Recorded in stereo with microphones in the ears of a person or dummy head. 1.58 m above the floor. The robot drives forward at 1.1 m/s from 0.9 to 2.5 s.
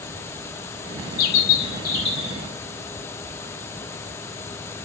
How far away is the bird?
About 0.6 m.